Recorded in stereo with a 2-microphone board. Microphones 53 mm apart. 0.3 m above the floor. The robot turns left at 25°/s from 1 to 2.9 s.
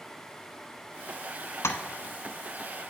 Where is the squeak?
I don't hear a squeak.